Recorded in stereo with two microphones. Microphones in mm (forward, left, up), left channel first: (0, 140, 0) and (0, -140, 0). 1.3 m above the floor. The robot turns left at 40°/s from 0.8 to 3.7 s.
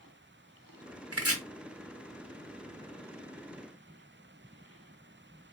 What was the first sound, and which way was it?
Chopping, 55° right (ahead or behind).